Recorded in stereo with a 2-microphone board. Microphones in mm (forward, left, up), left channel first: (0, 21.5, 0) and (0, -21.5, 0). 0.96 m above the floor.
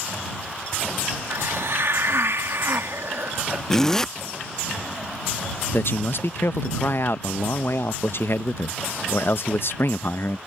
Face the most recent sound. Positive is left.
turn(degrees=60)  # may be behind; listen again after turning